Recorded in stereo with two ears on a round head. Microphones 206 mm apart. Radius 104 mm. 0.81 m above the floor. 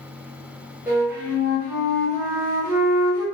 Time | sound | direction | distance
0.9 | a flute | 10° right (ahead or behind) | 1.2 m